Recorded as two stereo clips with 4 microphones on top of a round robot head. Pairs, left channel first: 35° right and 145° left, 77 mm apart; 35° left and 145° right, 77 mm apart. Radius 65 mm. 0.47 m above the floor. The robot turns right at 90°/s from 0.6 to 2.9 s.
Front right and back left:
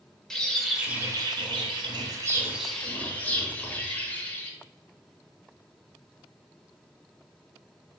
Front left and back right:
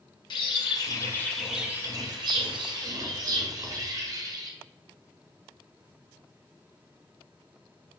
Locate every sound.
0.3 s a bird: 50° left, 0.9 m; by 4.5 s 105° right, 0.9 m